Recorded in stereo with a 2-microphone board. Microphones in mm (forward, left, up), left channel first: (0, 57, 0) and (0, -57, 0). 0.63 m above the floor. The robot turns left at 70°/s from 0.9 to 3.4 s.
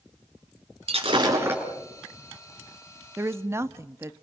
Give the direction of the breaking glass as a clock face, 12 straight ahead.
4 o'clock.